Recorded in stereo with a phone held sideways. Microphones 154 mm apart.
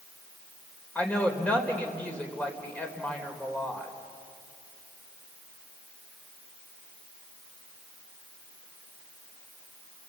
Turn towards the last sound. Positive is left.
turn(degrees=10)  # may be behind; listen again after turning